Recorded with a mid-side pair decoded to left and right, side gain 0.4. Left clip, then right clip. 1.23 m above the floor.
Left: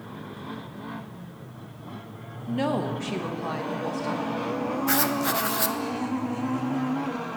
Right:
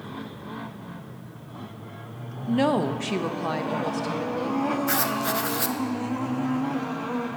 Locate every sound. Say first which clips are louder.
2.5 s a woman speaking: right 4 dB; 35° right, 0.7 m
4.9 s writing: even; 15° left, 0.7 m